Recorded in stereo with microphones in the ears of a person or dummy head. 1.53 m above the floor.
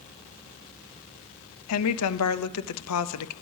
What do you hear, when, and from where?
1.7 s a woman speaking: 80° left, 0.5 m